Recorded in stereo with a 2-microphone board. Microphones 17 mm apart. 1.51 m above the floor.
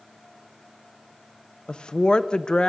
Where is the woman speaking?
65° left (ahead or behind), 0.8 m.